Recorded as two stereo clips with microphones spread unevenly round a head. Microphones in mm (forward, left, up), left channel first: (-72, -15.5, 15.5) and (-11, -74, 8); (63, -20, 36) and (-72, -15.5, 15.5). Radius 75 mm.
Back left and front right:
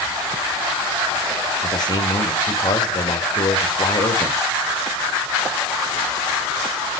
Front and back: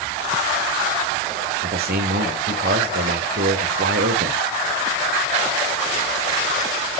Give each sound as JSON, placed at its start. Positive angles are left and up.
{"t": 1.6, "sound": "a man speaking", "azimuth_deg": 170, "distance_m": 3.0}